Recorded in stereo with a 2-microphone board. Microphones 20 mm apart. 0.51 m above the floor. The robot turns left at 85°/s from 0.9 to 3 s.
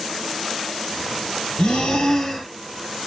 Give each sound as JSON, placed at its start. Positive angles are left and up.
{"t": 1.6, "sound": "breathing", "azimuth_deg": 80, "distance_m": 1.1}